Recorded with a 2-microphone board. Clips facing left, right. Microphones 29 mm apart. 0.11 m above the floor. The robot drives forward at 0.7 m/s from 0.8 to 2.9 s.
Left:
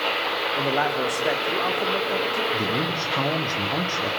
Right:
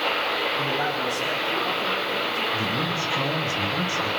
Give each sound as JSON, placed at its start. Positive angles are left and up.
{"t": 0.6, "sound": "a man speaking", "side_deg": 70, "distance_m": 4.5}
{"t": 2.5, "sound": "a man speaking", "side_deg": 45, "distance_m": 4.0}